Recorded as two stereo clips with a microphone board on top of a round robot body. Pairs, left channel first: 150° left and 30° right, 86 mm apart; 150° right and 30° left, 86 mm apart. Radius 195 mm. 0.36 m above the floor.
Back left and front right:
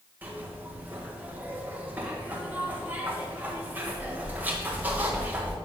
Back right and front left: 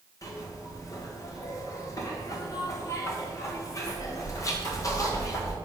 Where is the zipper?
100° right, 1.4 m.